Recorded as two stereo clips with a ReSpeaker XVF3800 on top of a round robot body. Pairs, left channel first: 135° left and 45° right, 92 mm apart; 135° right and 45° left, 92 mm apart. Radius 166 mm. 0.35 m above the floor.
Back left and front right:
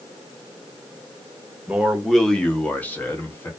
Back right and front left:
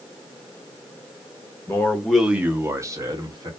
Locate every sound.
1.7 s a man speaking: 110° right, 0.9 m; by 3.5 s 75° left, 1.3 m